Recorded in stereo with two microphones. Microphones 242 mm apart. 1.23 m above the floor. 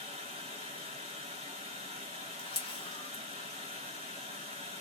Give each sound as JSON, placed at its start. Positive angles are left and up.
{"t": 0.0, "sound": "running water", "side_deg": -25, "distance_m": 1.8}
{"t": 2.4, "sound": "a camera shutter", "side_deg": 20, "distance_m": 1.5}